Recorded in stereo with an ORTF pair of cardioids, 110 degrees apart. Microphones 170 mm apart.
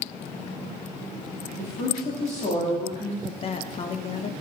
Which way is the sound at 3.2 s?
35° left.